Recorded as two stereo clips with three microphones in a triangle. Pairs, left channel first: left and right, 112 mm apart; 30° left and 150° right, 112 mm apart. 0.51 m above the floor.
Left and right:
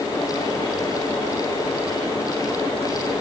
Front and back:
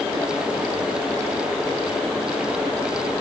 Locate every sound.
Only background noise.